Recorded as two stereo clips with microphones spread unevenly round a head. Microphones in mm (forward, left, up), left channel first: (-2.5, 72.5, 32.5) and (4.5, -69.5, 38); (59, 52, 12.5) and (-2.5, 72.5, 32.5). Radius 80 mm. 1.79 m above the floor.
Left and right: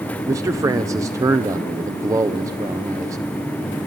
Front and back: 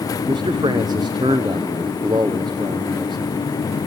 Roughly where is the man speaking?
Behind right.